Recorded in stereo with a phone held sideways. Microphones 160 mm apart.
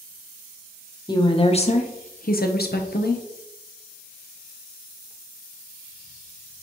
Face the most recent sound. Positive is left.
turn(degrees=80)